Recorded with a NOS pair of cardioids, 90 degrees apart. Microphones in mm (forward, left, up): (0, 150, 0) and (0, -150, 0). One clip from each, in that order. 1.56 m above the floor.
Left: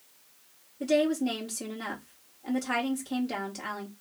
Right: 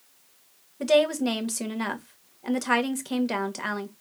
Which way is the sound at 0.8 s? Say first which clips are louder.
Right 5 dB; 60° right.